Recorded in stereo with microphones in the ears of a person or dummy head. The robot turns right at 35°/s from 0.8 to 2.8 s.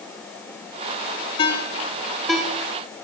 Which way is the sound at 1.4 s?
25° left (ahead or behind).